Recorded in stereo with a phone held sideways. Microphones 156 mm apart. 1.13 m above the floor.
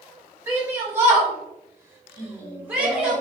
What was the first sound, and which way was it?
A shout, 15° right (ahead or behind).